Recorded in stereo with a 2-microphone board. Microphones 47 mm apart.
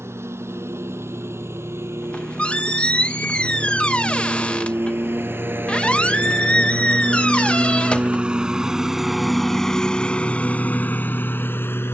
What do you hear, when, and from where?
0.0 s a lawn mower: 65° right (ahead or behind); by 11.9 s 55° left (ahead or behind)
2.0 s a squeak: 25° left (ahead or behind)